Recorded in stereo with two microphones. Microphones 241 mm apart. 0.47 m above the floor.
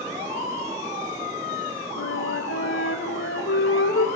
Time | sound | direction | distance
2.0 | a flute | 60° left (ahead or behind) | 1.6 m